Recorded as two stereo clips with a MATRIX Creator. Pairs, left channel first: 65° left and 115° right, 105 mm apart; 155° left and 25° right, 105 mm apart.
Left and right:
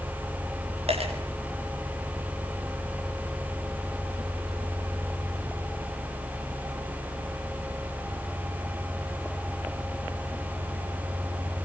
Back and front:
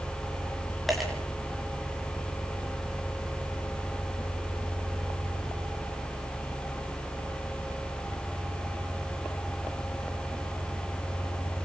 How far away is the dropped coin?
About 9 m.